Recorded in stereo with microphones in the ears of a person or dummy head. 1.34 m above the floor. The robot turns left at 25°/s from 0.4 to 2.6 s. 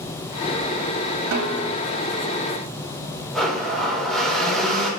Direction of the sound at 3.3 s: 5° left (ahead or behind).